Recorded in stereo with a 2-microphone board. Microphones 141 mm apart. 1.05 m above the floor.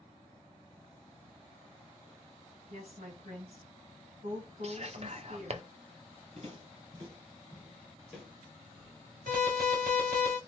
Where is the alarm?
80° right, 1.6 m.